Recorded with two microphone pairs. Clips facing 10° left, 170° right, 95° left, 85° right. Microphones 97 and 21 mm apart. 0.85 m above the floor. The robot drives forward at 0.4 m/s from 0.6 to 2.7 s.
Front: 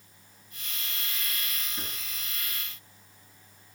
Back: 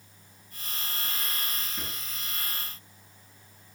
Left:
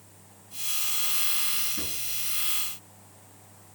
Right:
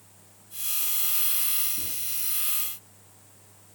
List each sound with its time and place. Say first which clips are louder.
1.8 s a drawer: back 1 dB, left 3 dB; 95° left, 4.5 m